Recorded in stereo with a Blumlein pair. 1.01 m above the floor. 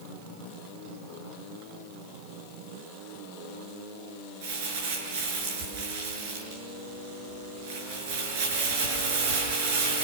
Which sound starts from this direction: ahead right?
Crumpling, at 4.4 s.